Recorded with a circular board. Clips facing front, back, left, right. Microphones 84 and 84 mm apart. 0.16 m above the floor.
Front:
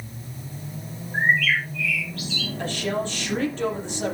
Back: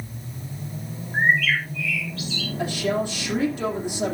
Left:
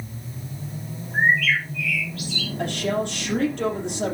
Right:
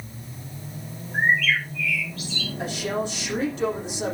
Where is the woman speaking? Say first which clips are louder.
Back 3 dB, left 3 dB; 100° left, 5.5 m.